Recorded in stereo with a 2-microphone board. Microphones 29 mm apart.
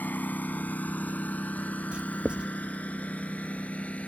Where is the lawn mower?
70° left (ahead or behind); by 4.1 s 45° left (ahead or behind).